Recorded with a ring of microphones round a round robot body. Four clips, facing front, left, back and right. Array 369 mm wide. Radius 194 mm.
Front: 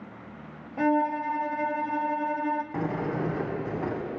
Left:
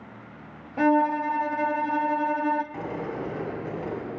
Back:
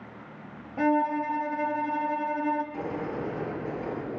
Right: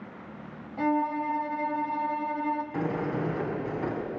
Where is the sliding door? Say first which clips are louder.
Right 2 dB, front 3 dB; 15° right, 6 m.